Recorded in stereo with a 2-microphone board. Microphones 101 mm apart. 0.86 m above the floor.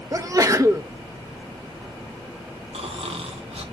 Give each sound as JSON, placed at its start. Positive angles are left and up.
{"t": 0.1, "sound": "a sneeze", "side_deg": -35, "distance_m": 1.0}
{"t": 2.7, "sound": "snoring", "side_deg": -75, "distance_m": 2.0}